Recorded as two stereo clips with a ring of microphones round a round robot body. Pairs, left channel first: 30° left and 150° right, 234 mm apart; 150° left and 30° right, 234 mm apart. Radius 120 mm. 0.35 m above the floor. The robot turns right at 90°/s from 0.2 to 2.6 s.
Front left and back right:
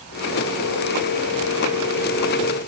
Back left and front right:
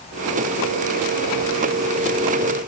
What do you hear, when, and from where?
Only background noise.